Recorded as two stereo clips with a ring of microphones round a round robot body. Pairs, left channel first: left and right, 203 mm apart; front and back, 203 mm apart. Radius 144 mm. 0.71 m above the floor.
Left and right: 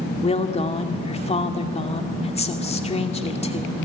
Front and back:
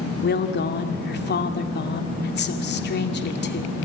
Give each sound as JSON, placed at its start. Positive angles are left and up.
{"t": 0.2, "sound": "a woman speaking", "azimuth_deg": 30, "distance_m": 2.5}